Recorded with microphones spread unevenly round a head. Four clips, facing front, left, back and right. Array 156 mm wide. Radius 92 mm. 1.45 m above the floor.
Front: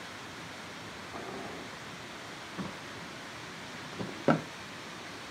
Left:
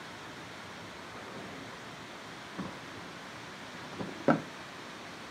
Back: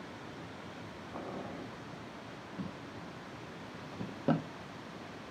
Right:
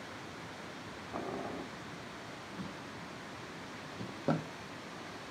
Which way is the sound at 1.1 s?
70° right.